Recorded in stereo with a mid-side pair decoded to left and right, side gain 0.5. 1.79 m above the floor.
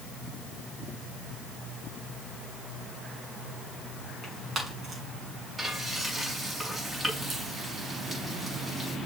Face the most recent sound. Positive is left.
turn(degrees=-30)